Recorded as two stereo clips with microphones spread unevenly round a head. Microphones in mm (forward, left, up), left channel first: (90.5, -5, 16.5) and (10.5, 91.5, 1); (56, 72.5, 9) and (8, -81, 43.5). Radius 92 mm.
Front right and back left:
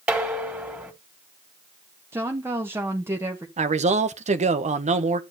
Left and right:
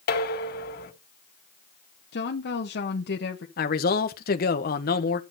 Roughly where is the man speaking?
Left.